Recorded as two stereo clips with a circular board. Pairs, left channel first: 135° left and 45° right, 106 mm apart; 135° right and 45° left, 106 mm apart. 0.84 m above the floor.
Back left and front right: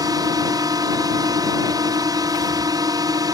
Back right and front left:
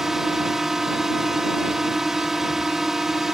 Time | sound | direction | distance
0.0 | a drone | 40° right | ?